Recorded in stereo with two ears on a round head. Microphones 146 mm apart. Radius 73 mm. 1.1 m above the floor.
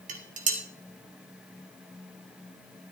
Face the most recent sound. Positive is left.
turn(degrees=-50)  # may be behind; listen again after turning